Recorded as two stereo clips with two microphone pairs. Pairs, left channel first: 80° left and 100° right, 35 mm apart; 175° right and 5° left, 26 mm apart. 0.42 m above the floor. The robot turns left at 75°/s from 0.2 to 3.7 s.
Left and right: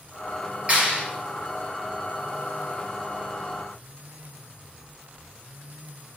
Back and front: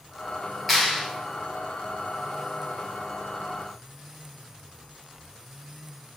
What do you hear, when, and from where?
0.7 s a clap: 75° right, 1.1 m; by 1.0 s 100° right, 1.1 m